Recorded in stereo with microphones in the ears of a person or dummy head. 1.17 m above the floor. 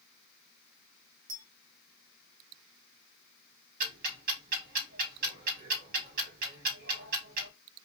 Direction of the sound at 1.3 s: 40° right (ahead or behind).